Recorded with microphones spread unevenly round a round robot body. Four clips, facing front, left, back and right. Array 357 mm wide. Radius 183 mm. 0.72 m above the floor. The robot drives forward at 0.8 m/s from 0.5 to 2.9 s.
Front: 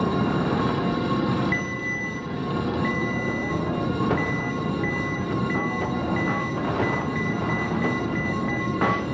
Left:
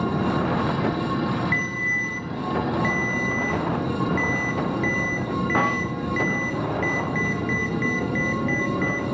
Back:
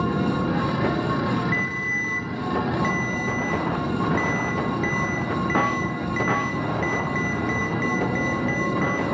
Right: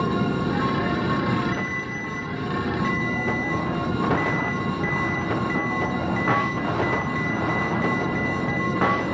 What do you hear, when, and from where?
1.5 s a ringtone: 55° left, 0.5 m; by 9.1 s 160° left, 1.0 m